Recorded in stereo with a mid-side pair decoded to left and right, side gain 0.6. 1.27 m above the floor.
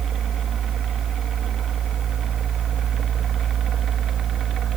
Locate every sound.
0.0 s a fan: 45° right, 1.8 m